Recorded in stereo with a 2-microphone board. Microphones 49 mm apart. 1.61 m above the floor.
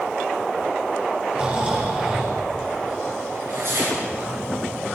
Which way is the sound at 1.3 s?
25° right (ahead or behind).